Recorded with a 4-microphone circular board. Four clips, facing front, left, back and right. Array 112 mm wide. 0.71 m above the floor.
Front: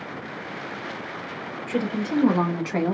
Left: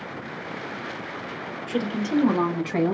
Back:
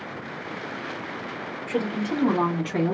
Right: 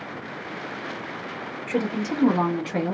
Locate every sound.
1.7 s a woman speaking: 95° right, 1.2 m; by 3.0 s 40° left, 1.1 m